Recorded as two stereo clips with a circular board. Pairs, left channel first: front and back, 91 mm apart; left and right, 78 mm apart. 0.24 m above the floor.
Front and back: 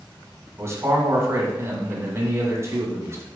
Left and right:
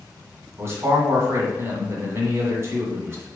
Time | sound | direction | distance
0.6 | a man speaking | 135° right | 1.9 m